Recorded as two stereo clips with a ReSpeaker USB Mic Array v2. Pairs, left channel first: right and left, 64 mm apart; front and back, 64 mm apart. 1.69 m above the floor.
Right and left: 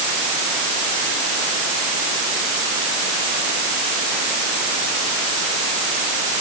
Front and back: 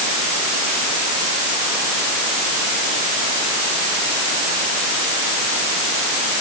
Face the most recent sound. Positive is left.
No sound to turn to.